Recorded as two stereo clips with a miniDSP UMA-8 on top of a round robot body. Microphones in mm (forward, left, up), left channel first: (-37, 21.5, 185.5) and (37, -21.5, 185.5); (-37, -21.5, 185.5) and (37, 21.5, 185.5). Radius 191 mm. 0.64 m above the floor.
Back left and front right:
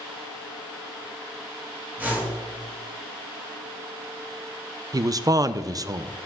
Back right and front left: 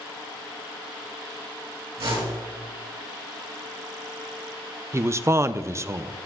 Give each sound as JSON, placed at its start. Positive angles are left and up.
{"t": 2.0, "sound": "a whoosh", "azimuth_deg": 40, "distance_m": 3.0}
{"t": 4.9, "sound": "a man speaking", "azimuth_deg": -10, "distance_m": 0.6}